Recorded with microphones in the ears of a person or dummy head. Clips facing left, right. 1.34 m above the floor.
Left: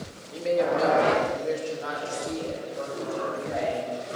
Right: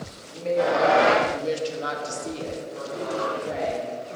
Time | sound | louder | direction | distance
0.3 | a woman speaking | right 1 dB | 20° left (ahead or behind) | 1.8 m